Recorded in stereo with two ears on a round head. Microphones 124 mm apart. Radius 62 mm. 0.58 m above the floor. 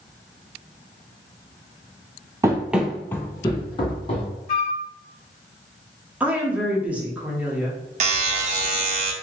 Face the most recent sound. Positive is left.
turn(degrees=-50)  # may be behind; listen again after turning